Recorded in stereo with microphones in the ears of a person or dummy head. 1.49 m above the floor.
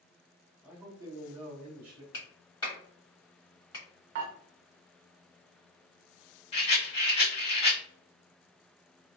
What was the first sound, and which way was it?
A man speaking, 5° right (ahead or behind).